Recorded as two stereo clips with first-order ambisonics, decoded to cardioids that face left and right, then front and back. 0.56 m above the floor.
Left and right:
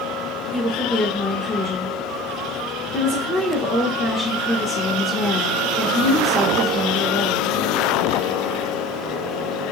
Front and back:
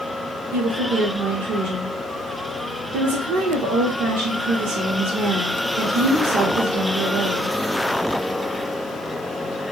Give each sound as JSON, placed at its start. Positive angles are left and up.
{"t": 0.5, "sound": "a woman speaking", "azimuth_deg": 170, "distance_m": 1.2}